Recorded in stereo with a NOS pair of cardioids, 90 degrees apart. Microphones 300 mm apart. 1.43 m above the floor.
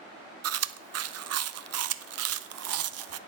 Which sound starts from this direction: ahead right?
Chewing, at 0.4 s.